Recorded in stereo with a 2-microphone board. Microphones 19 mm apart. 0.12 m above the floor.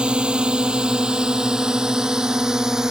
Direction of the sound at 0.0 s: 65° right (ahead or behind).